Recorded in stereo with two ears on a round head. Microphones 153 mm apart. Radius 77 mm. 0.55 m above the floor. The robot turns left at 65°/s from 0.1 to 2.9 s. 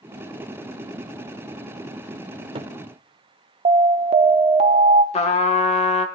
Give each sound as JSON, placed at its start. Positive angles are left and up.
{"t": 2.3, "sound": "a cupboard door", "side_deg": -45, "distance_m": 1.0}
{"t": 3.6, "sound": "an alarm", "side_deg": -40, "distance_m": 0.7}
{"t": 5.1, "sound": "a trumpet", "side_deg": 40, "distance_m": 1.1}